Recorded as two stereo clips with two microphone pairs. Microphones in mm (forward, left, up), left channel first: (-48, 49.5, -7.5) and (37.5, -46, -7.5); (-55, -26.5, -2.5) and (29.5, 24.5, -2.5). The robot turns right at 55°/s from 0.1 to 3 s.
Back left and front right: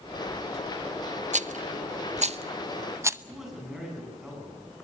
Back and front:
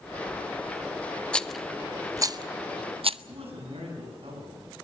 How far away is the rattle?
About 0.7 m.